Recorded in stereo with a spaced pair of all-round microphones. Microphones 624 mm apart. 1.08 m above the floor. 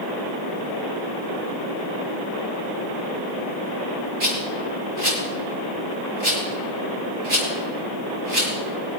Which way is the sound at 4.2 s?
50° right (ahead or behind).